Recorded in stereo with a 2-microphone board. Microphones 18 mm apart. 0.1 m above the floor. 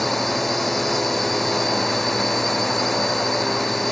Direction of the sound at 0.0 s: 10° left (ahead or behind).